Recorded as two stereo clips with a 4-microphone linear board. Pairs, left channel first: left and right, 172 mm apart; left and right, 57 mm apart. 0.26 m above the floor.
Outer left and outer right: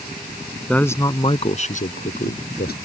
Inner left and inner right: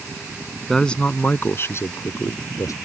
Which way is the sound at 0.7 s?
5° left (ahead or behind).